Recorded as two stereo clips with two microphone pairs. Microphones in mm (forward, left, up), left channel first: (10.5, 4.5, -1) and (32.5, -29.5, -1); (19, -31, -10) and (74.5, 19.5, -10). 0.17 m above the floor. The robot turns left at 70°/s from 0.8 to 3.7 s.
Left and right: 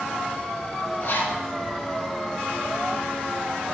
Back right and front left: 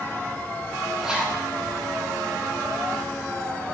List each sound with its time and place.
1.0 s a zipper: 125° left, 3.5 m; by 1.4 s 95° left, 3.5 m